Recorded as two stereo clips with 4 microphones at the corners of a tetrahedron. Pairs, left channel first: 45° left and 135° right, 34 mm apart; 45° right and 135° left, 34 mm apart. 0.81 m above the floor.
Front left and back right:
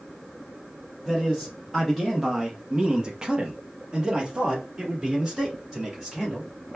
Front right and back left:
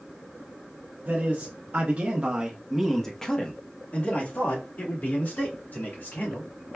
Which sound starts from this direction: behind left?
A man speaking, at 1.1 s.